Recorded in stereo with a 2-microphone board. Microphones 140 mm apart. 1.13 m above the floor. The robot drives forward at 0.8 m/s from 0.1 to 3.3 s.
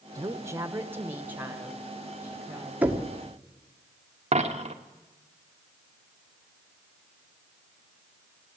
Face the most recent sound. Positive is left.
turn(degrees=-50)  # may be behind; listen again after turning